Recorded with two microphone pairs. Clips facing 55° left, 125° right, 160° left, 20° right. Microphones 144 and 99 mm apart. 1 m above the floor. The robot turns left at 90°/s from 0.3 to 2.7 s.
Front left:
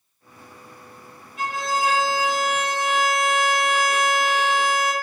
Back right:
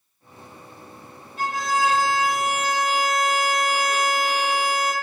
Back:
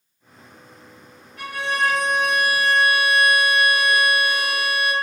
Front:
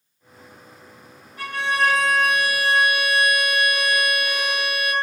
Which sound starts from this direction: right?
A violin, at 1.4 s.